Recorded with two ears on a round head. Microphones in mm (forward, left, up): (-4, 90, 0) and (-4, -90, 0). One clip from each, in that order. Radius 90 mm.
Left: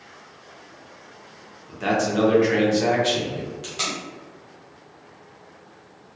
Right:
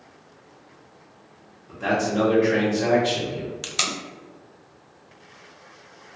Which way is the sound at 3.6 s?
55° right (ahead or behind).